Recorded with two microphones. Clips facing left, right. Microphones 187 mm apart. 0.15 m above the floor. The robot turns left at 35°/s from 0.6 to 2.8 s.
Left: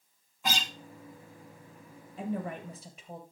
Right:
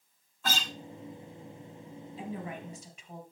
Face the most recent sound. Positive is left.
turn(degrees=35)  # may be behind; listen again after turning